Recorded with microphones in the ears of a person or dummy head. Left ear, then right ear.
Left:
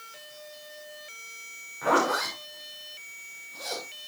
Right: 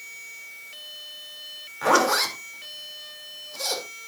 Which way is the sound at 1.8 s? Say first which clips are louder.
Right 4 dB; 85° right.